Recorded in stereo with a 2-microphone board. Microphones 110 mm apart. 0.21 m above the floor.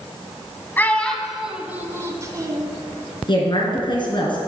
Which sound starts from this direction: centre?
A child speaking, at 0.8 s.